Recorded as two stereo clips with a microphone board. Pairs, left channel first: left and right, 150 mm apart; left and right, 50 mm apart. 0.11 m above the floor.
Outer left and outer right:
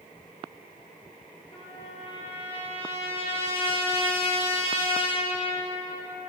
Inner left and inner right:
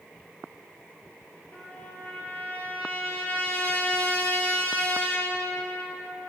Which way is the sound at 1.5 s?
35° left (ahead or behind).